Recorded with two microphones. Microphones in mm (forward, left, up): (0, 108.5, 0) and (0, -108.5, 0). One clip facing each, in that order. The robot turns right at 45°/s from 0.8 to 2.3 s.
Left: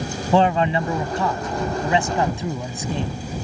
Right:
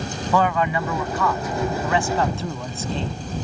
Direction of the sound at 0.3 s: 30° left (ahead or behind).